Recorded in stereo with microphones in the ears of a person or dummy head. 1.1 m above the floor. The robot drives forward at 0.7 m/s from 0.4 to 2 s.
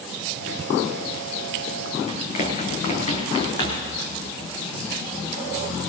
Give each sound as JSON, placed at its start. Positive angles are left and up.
{"t": 2.1, "sound": "running footsteps", "side_deg": 40, "distance_m": 4.5}